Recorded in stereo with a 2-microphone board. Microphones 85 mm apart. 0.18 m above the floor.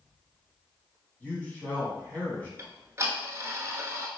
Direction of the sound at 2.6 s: 30° right (ahead or behind).